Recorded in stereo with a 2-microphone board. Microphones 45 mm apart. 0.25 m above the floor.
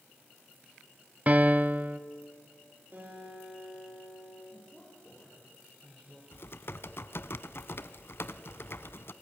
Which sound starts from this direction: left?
Typing on a keyboard, at 6.3 s.